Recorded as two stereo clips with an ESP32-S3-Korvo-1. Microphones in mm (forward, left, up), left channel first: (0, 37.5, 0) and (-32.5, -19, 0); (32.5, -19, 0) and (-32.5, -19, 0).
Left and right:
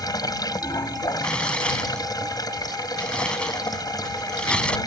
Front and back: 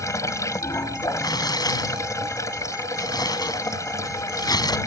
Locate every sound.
0.0 s running water: 40° left
1.2 s tearing paper: 15° right